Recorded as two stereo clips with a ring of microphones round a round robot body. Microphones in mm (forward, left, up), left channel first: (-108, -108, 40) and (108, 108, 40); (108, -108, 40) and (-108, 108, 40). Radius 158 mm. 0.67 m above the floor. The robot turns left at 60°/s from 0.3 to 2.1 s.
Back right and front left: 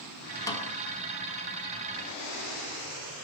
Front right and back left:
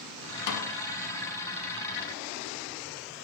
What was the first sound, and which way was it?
A snare drum, 55° right.